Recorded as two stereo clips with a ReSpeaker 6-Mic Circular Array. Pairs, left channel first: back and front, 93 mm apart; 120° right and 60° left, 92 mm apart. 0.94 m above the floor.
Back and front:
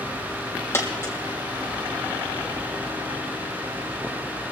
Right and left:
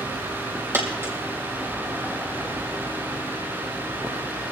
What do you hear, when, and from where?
0.7 s a dropped coin: 120° left, 2.5 m